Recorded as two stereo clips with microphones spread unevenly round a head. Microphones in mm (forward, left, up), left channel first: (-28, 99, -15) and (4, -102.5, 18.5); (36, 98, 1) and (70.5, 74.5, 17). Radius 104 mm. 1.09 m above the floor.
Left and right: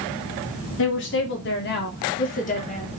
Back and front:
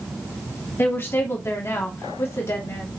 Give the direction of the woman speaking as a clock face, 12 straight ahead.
8 o'clock.